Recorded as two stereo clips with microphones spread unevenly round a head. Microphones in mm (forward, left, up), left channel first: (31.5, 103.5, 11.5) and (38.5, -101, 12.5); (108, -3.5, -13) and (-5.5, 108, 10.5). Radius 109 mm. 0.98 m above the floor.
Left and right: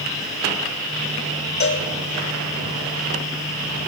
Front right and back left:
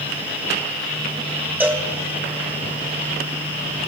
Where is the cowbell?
55° left, 1.4 m.